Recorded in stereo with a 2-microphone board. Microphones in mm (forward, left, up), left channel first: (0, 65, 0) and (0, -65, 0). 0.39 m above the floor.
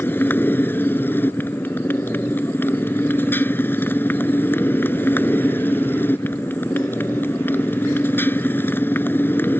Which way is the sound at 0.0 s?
15° left (ahead or behind).